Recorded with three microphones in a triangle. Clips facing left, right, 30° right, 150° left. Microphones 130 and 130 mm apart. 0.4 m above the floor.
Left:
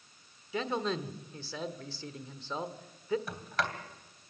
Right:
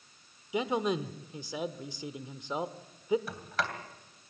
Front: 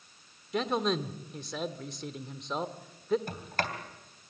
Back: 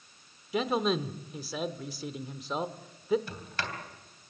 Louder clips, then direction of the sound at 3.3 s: Even, front 4 dB; straight ahead.